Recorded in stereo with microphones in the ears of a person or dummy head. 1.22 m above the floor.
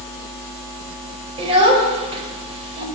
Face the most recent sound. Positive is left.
turn(degrees=-30)  # may be behind; listen again after turning